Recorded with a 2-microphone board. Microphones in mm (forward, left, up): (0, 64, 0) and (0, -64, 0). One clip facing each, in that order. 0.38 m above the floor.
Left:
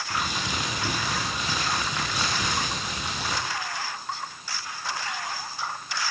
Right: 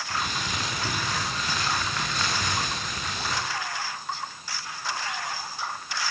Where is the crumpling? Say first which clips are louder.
Left 1 dB; 10° left (ahead or behind), 9.5 m.